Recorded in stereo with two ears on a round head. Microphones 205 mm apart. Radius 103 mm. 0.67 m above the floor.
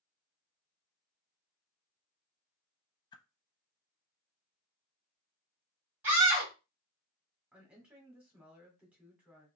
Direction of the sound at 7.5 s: 5° right (ahead or behind).